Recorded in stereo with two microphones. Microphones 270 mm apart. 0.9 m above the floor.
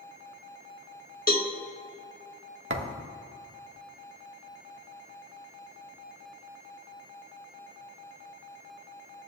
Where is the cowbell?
35° left (ahead or behind), 1.1 m.